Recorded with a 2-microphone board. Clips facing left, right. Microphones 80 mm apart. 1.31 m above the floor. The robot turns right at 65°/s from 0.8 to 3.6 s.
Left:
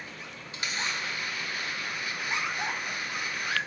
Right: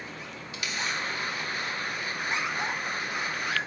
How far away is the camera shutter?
About 1.4 m.